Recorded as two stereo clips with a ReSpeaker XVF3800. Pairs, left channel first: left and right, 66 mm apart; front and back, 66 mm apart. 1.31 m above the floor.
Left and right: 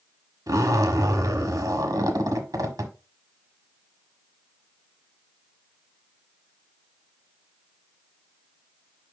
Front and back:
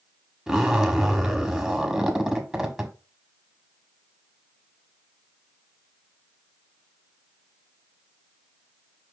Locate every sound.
0.5 s a zipper: 95° right, 1.5 m